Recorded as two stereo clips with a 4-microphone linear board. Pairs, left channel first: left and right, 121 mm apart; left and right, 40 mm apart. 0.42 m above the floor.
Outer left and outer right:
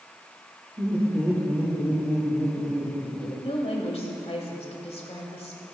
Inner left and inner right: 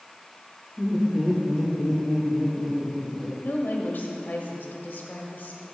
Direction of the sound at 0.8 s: 25° right (ahead or behind).